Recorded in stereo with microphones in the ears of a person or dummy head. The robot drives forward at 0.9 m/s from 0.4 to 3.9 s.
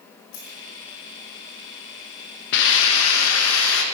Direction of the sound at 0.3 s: 75° left (ahead or behind).